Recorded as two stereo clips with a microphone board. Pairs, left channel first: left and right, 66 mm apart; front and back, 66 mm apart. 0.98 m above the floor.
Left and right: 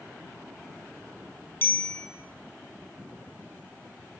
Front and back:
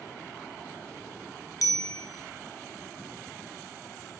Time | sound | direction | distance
1.6 | a bicycle bell | 30° left | 7 m